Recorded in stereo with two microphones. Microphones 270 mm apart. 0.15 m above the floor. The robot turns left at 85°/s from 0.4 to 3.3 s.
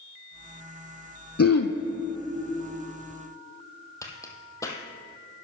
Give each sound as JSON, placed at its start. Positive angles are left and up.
{"t": 1.4, "sound": "throat clearing", "azimuth_deg": 120, "distance_m": 0.8}
{"t": 4.0, "sound": "a crack", "side_deg": 10, "distance_m": 1.2}